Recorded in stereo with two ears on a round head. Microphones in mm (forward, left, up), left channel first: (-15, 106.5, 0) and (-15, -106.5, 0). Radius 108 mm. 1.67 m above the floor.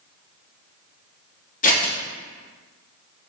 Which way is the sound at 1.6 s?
35° left (ahead or behind).